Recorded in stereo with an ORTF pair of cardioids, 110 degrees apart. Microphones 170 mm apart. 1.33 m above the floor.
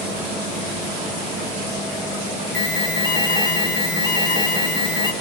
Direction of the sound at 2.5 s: 25° left.